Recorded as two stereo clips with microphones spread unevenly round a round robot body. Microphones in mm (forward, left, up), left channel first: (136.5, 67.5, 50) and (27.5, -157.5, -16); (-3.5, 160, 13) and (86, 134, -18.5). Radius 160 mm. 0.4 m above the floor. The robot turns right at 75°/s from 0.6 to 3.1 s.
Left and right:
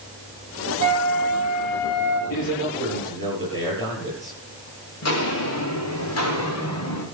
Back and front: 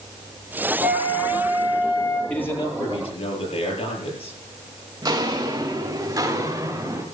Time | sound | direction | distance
0.8 | a flute | 90° right | 7 m
2.3 | a man speaking | 85° left | 9 m
5.0 | footsteps | 40° left | 4.5 m